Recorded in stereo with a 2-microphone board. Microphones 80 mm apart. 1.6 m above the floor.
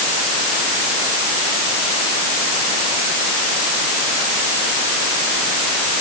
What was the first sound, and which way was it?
Only background noise.